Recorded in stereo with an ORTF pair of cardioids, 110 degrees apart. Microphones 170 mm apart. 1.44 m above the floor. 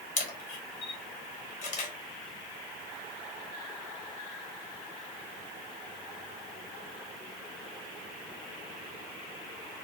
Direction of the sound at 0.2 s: 50° left.